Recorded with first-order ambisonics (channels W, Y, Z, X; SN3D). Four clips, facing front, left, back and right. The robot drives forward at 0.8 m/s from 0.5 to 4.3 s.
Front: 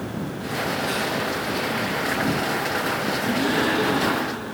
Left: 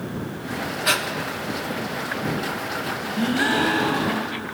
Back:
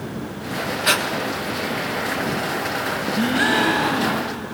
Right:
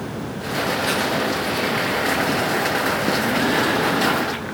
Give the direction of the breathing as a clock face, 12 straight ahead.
7 o'clock.